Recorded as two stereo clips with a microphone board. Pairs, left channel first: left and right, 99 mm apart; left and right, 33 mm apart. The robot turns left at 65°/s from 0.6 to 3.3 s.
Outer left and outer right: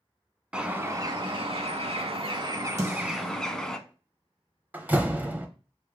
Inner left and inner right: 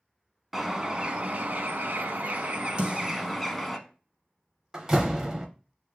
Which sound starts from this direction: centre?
A door slam, at 4.7 s.